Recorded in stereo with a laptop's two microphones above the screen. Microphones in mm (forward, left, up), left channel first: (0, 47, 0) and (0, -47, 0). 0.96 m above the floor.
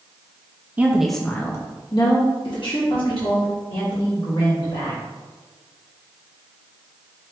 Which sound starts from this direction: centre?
A woman speaking, at 0.8 s.